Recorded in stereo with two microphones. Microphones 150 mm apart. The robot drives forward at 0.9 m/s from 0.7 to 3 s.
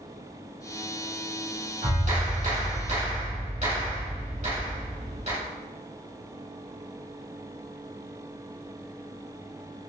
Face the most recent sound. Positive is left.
turn(degrees=-50)  # may be behind; listen again after turning